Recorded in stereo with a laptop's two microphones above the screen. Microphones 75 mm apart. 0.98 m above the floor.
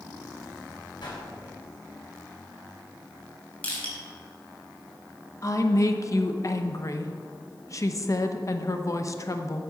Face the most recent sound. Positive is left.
turn(degrees=45)  # may be behind; listen again after turning